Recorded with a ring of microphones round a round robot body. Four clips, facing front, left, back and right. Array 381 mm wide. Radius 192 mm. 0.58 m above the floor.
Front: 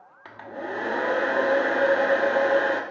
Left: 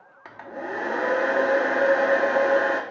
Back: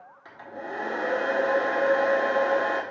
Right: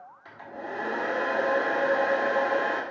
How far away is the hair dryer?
About 1.1 m.